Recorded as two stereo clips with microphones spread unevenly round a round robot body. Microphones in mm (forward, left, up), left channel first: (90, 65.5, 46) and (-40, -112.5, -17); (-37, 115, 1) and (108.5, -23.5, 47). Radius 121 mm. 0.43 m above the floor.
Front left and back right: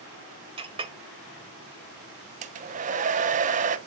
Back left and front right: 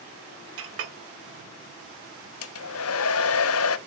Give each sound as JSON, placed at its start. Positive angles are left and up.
{"t": 0.6, "sound": "a clink", "azimuth_deg": -75, "distance_m": 1.3}
{"t": 2.4, "sound": "a hair dryer", "azimuth_deg": 170, "distance_m": 0.7}